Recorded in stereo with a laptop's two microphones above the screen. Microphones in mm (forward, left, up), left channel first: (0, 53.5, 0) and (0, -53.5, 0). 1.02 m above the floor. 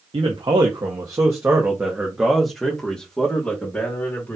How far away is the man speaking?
About 1.2 m.